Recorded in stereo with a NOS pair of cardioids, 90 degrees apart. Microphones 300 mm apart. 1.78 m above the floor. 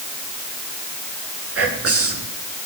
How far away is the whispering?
About 6.5 m.